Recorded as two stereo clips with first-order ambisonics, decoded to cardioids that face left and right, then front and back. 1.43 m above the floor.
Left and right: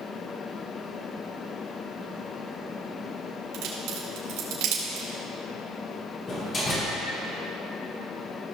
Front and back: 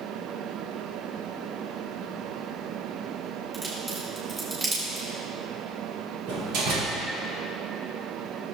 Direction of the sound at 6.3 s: 155° left.